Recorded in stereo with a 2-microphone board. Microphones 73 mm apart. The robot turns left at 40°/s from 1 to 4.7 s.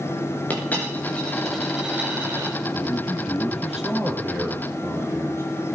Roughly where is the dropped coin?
Ahead left.